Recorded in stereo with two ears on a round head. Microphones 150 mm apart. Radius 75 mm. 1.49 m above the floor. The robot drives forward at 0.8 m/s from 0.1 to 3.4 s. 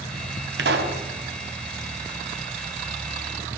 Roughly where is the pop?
Right.